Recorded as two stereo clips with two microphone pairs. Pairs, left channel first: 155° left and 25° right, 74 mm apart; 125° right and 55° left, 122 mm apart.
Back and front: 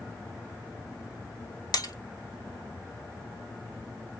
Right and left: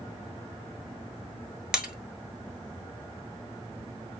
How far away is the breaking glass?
About 0.9 m.